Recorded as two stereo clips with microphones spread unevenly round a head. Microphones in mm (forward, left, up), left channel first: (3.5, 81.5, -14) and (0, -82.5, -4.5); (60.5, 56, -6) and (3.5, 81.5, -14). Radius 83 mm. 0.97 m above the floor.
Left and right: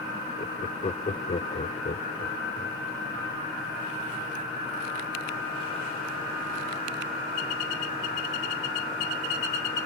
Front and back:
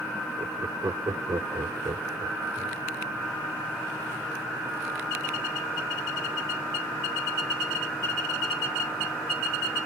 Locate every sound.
0.4 s laughter: 140° left